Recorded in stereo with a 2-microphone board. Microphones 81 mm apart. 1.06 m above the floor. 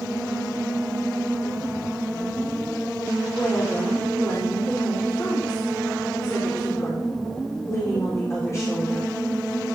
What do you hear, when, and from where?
3.3 s a woman speaking: 35° left (ahead or behind), 3.5 m